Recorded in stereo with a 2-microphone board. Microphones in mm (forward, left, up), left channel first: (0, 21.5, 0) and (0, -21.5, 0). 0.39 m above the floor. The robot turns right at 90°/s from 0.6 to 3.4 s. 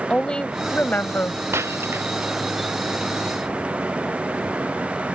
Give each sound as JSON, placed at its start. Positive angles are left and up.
{"t": 0.1, "sound": "a woman speaking", "azimuth_deg": 25}
{"t": 1.5, "sound": "breaking glass", "side_deg": -75}